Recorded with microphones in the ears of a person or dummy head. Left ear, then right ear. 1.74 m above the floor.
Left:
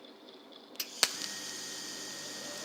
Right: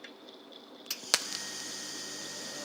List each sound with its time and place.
0.0 s a fan: centre (ahead or behind)